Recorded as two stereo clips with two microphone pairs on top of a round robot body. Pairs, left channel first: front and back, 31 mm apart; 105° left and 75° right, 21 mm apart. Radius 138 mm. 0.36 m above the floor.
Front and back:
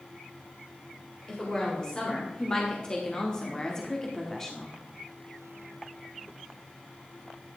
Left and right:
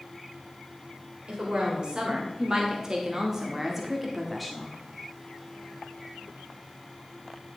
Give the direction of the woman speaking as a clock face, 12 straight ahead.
2 o'clock.